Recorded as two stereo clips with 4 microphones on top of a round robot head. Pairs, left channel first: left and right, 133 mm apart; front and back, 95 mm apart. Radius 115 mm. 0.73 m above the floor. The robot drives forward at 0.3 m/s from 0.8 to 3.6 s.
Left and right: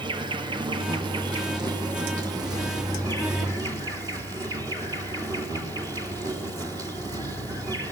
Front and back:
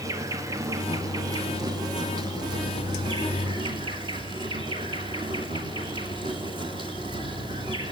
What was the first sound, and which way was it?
An insect, 135° right.